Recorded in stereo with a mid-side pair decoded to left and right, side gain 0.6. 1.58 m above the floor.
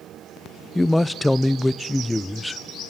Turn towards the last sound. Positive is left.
turn(degrees=5)